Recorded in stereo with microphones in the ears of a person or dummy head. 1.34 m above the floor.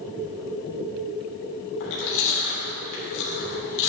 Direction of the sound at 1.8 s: 70° left (ahead or behind).